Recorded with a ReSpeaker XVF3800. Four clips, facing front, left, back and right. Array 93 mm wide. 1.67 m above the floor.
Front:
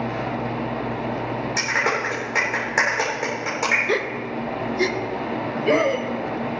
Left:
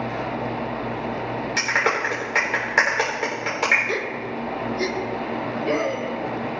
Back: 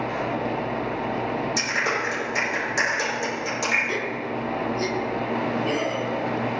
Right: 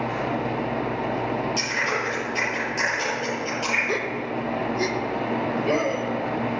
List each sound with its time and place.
1.6 s a clap: 60° left, 4 m
3.9 s a gasp: 5° right, 0.7 m